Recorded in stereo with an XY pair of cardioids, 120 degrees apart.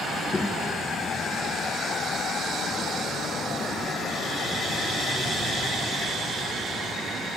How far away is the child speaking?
About 1.3 m.